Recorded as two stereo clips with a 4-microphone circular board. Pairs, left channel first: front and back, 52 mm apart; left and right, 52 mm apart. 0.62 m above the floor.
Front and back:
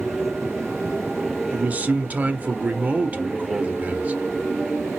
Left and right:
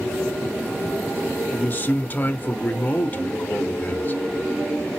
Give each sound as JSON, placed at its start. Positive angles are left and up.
{"t": 1.5, "sound": "a man speaking", "azimuth_deg": 130, "distance_m": 0.9}